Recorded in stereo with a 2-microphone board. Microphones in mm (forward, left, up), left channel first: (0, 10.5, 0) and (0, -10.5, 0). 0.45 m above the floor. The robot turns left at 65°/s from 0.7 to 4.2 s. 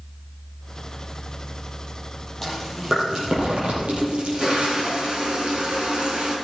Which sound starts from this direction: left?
Chewing, at 2.4 s.